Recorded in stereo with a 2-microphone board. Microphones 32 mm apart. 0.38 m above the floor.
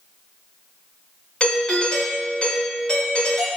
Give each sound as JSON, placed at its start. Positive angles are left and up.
{"t": 1.4, "sound": "a doorbell", "side_deg": 35, "distance_m": 1.5}